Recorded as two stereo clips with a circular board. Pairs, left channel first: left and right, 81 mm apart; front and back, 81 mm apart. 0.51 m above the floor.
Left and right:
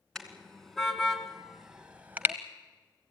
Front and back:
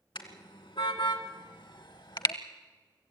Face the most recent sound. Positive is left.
turn(degrees=-25)